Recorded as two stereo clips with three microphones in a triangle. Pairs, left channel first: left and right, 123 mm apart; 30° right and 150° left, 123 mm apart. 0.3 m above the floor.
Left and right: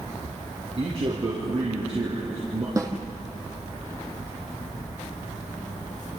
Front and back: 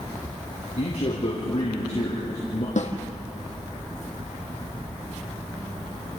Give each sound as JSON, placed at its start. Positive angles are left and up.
{"t": 0.8, "sound": "a man speaking", "azimuth_deg": -55, "distance_m": 4.5}
{"t": 2.8, "sound": "a snare drum", "azimuth_deg": -25, "distance_m": 2.0}